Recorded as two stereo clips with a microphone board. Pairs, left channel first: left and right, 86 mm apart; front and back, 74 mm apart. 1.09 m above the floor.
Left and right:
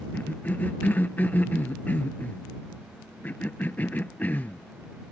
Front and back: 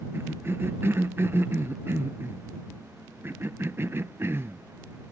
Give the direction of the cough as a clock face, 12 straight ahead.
7 o'clock.